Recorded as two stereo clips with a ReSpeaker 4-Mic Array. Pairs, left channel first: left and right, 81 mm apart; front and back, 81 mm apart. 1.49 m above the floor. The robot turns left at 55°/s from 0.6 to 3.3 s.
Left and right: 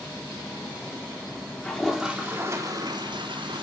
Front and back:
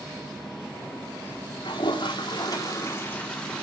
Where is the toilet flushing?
15° left, 3 m; by 3.6 s 75° right, 3 m.